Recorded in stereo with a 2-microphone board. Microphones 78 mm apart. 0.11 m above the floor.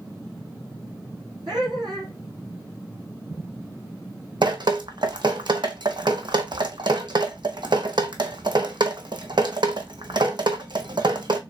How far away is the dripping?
About 0.8 m.